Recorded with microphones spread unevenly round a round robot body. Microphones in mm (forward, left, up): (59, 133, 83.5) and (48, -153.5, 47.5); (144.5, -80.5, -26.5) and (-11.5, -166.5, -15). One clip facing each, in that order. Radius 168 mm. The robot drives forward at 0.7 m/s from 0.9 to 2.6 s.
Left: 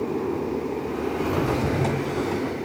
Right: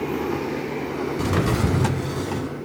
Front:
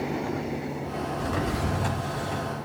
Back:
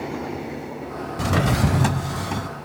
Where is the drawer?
150° right, 0.5 m; by 2.5 s 170° right, 1.4 m.